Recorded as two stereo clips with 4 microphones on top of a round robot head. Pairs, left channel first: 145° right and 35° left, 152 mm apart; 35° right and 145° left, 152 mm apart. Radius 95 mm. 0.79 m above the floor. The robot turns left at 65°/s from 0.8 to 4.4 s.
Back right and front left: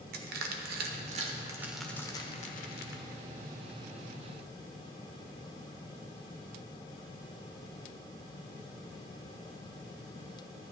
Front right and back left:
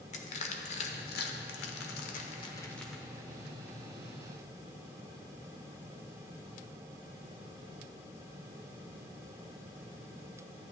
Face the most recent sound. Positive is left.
turn(degrees=135)